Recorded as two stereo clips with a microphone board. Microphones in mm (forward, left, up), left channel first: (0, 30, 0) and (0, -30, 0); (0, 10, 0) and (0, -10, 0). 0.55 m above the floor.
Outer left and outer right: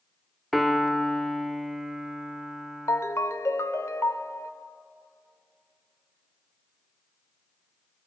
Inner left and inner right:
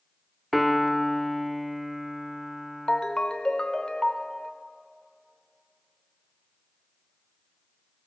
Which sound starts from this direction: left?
A ringtone, at 2.9 s.